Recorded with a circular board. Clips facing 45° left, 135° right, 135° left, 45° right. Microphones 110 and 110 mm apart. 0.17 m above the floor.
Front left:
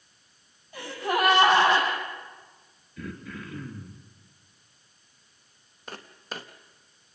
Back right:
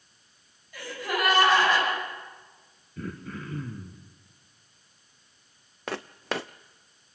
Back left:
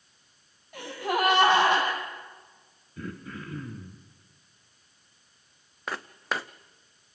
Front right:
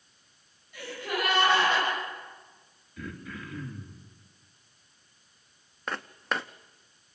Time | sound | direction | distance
0.7 | a gasp | 110° left | 9 m
3.0 | throat clearing | 175° right | 3 m
5.9 | footsteps | 140° right | 0.7 m